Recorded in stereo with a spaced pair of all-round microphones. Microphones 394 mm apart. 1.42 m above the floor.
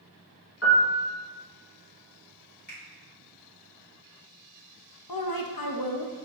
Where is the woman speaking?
65° left (ahead or behind), 0.5 m.